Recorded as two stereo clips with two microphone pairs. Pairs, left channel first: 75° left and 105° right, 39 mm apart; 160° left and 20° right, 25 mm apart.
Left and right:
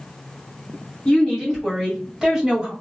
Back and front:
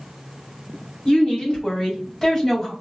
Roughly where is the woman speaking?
Behind left.